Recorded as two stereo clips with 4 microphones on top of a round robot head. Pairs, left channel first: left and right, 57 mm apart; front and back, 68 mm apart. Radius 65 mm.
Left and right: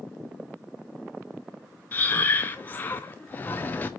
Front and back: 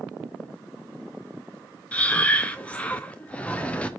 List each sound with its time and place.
1.9 s breathing: 60° left, 0.6 m